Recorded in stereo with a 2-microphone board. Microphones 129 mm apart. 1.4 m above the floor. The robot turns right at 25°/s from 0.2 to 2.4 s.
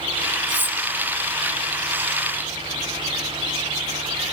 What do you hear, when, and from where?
0.5 s cutlery clinking: 35° right (ahead or behind), 0.5 m